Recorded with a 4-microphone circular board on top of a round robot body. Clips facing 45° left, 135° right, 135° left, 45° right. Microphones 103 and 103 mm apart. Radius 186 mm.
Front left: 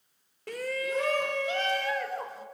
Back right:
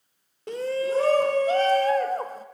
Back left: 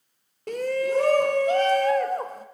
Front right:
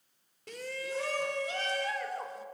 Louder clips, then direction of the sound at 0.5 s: Back right 6 dB, back left 14 dB; 160° left.